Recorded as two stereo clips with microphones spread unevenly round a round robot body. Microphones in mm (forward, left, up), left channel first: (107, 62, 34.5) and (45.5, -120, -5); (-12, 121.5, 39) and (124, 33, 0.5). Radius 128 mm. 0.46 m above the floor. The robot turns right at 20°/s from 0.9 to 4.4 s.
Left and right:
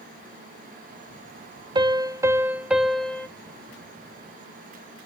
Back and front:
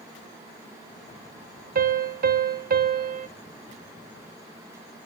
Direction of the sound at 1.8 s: 50° right.